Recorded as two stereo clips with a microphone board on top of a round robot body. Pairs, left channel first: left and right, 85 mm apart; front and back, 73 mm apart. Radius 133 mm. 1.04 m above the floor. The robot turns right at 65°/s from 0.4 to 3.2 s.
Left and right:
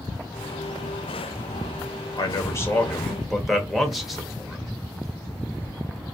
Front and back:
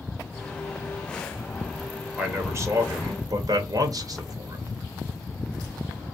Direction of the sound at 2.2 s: 115° left.